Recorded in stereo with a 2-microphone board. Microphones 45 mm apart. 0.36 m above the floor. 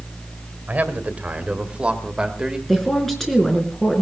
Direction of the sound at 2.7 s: 5° left (ahead or behind).